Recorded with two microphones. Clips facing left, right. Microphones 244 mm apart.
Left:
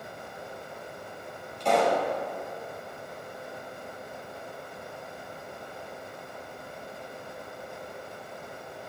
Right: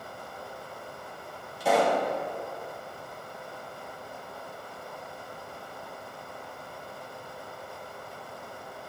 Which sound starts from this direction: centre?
A pop, at 1.6 s.